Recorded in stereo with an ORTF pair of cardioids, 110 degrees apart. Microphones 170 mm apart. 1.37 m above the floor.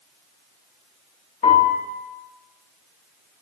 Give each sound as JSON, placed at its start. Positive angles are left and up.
{"t": 1.4, "sound": "a piano", "azimuth_deg": 55, "distance_m": 1.3}